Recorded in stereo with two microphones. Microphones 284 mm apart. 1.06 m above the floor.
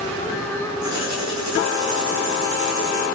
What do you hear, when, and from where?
0.8 s writing: 80° right, 8 m